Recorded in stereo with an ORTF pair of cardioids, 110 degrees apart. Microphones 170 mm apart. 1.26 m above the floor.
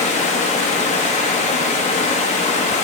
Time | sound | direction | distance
0.0 | running water | 45° left | 0.8 m